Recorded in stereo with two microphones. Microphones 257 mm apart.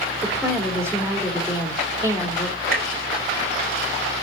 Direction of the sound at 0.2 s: 10° right (ahead or behind).